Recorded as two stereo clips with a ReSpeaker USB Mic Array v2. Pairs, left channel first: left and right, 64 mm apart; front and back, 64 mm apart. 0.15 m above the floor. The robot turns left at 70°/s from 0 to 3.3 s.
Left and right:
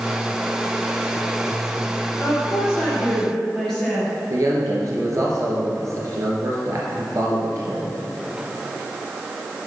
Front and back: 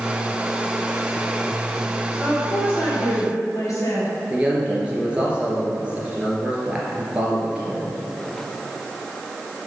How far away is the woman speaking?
About 2.5 m.